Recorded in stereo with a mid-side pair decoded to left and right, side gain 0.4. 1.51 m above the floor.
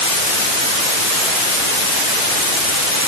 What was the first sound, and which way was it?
Only background noise.